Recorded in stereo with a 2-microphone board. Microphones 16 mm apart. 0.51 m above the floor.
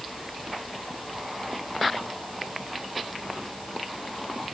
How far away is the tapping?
No tapping in this recording.